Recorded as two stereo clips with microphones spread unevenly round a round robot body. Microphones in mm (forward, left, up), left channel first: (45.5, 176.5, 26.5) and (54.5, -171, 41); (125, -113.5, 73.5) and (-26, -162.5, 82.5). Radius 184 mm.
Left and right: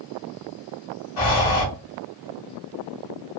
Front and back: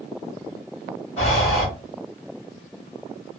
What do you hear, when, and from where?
1.2 s breathing: 75° left, 1.6 m